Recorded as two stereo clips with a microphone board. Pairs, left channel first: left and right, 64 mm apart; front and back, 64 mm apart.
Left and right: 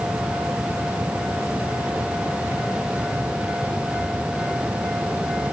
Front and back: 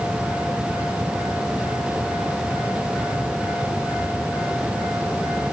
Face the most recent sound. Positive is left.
No sound to turn to.